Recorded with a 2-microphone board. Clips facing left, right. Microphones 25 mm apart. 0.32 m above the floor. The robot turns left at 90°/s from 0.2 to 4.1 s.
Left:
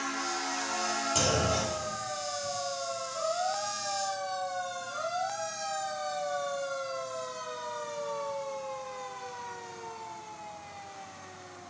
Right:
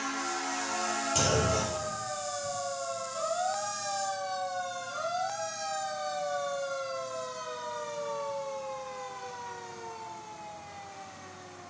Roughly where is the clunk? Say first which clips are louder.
Right 1 dB; centre.